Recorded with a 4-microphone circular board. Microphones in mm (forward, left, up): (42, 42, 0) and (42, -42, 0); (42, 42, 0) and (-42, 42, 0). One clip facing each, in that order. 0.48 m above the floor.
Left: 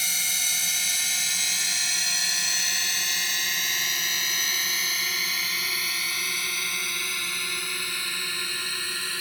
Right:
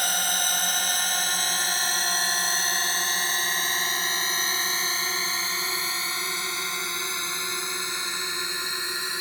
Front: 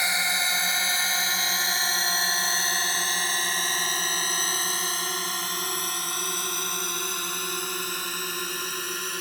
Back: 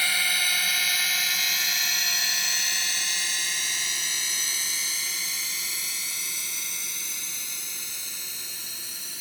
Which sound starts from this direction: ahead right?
A drone, at 0.0 s.